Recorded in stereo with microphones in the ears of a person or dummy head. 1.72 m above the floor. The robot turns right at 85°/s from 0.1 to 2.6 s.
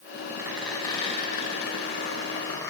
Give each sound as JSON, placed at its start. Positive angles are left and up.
{"t": 0.4, "sound": "a squeak", "azimuth_deg": -20, "distance_m": 1.4}